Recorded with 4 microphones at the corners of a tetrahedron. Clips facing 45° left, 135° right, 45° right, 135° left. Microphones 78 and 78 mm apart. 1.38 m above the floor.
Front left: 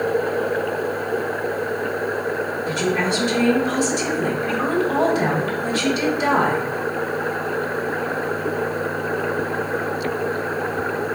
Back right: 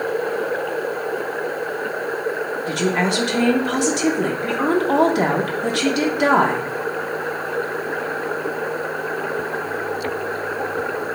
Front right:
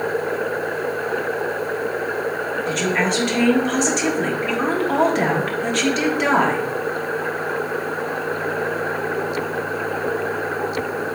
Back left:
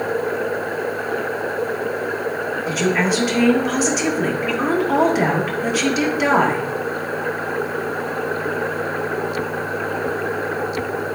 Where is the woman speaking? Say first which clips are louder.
Back right 2 dB, back left 2 dB; 140° right, 1.2 m.